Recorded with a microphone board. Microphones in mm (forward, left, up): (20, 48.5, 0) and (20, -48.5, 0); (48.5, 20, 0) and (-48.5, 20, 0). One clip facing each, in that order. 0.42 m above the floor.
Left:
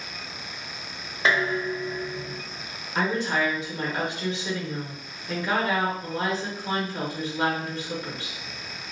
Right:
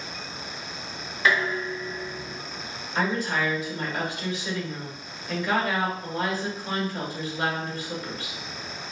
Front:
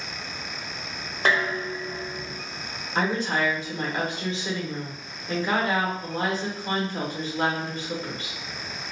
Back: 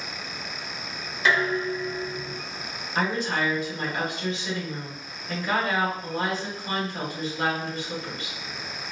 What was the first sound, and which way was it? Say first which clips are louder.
Dishes clattering: left 1 dB, back 1 dB; 35° left.